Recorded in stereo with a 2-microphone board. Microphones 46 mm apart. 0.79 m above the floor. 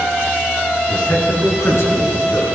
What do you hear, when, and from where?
0.9 s a man speaking: 65° left (ahead or behind), 8 m